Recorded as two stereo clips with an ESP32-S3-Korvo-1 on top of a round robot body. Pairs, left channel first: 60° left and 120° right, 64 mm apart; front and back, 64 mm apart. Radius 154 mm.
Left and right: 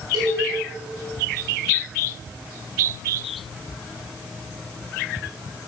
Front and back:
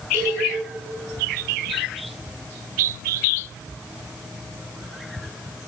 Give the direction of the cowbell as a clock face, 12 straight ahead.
4 o'clock.